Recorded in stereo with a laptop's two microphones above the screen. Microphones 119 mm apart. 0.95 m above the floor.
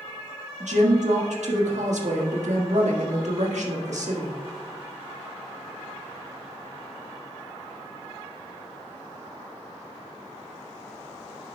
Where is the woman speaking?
80° right, 1.5 m.